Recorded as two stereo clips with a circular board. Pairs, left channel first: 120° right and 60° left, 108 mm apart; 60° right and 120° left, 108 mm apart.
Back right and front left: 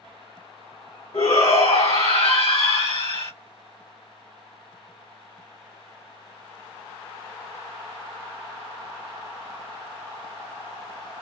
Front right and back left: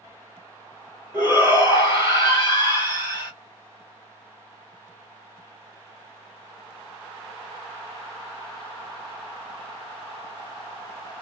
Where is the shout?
100° right, 2 m.